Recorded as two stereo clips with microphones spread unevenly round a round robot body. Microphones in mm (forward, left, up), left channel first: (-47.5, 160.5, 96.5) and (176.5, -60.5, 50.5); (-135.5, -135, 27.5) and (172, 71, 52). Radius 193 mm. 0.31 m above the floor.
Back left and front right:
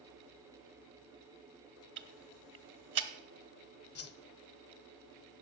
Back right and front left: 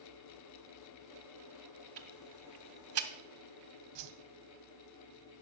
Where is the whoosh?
85° left, 0.6 m.